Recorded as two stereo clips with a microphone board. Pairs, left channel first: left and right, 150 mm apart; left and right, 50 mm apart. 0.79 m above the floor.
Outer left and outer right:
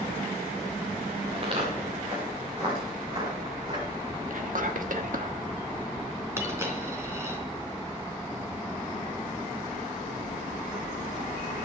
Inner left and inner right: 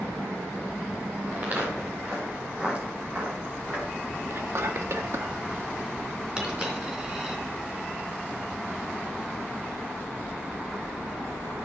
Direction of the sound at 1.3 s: 40° right (ahead or behind).